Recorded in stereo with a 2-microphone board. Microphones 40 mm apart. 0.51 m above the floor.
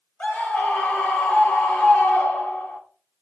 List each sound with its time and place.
0.2 s a scream: 40° left (ahead or behind), 1.0 m